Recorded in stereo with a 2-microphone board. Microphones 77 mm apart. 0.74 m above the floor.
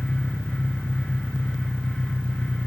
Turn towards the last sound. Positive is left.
turn(degrees=-20)  # may be behind; listen again after turning